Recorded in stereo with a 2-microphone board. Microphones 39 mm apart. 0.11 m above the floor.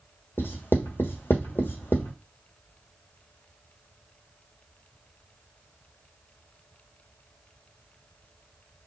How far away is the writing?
About 1.3 m.